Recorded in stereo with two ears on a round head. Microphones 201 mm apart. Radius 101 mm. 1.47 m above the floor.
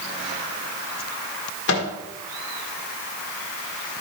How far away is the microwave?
About 1.5 m.